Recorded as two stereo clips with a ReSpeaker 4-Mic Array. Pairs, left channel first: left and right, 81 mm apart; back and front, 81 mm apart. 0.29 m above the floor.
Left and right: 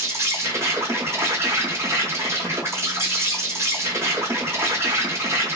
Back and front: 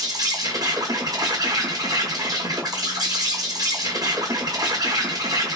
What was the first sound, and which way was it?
An insect, 35° right.